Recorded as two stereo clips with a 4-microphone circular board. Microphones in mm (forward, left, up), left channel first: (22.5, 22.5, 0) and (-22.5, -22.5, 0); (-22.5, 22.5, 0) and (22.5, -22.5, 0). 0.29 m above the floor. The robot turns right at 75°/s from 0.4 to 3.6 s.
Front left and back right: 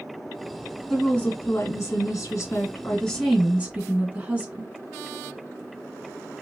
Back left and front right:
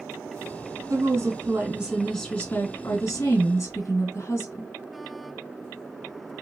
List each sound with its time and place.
0.9 s a woman speaking: 35° right, 2 m; by 4.7 s 165° left, 2 m